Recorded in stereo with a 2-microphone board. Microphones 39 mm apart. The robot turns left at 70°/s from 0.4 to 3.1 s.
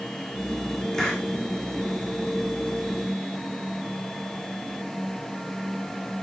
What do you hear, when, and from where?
0.9 s a hiss: 10° left (ahead or behind), 4 m; by 1.2 s 30° left (ahead or behind), 4 m